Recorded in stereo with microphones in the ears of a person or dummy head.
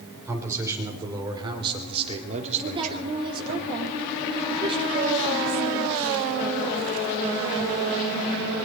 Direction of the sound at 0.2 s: 15° right (ahead or behind).